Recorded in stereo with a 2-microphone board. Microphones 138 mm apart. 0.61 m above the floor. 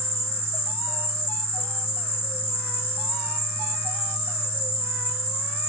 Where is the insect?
45° left (ahead or behind).